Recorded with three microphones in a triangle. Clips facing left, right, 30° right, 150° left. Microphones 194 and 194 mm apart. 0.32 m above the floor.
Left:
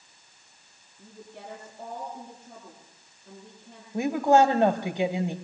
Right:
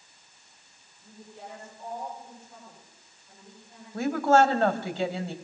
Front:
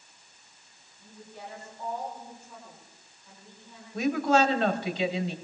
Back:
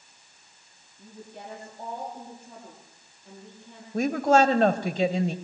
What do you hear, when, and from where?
1.0 s a woman speaking: 115° left, 8.5 m
3.9 s a woman speaking: 155° left, 1.4 m